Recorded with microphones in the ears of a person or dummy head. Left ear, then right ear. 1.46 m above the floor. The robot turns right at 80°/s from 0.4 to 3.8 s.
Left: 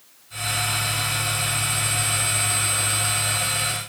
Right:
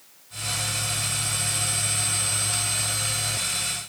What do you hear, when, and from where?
Only background noise.